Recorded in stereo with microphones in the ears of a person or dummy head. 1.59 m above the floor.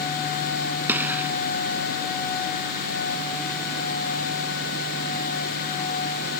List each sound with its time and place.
0.9 s a gunshot: 10° right (ahead or behind)